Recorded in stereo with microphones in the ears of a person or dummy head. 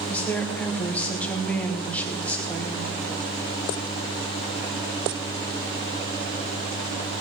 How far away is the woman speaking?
About 1.8 m.